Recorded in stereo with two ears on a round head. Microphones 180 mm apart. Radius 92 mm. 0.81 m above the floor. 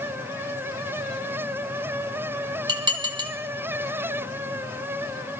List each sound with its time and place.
2.7 s dishes clattering: 25° right (ahead or behind), 2.0 m